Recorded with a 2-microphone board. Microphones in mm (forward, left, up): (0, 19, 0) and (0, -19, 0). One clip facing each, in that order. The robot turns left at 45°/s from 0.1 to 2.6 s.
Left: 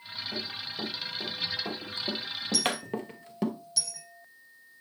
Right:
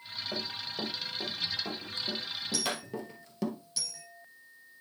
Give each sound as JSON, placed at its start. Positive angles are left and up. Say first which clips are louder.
{"t": 0.3, "sound": "running footsteps", "louder": "even", "side_deg": -60, "distance_m": 4.0}
{"t": 2.5, "sound": "a dropped coin", "louder": "left 5 dB", "side_deg": -5, "distance_m": 6.0}